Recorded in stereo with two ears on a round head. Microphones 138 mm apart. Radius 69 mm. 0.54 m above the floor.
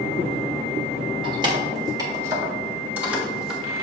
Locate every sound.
1.2 s keys jangling: 35° right (ahead or behind), 2.5 m; by 3.6 s 5° right (ahead or behind), 2.5 m